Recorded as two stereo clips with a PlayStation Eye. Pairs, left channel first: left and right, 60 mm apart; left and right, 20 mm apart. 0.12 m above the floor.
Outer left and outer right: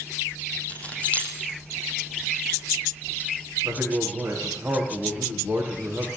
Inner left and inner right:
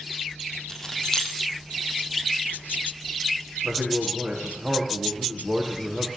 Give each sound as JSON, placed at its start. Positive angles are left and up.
{"t": 0.7, "sound": "keys jangling", "side_deg": 25, "distance_m": 4.0}
{"t": 3.6, "sound": "a man speaking", "side_deg": -25, "distance_m": 8.0}